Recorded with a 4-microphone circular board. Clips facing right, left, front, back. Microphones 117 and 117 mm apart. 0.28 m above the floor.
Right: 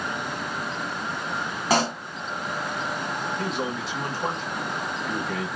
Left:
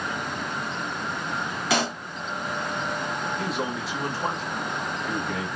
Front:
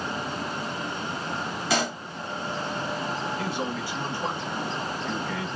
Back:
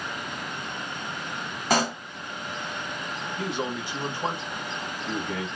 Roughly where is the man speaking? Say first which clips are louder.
Even, even; behind.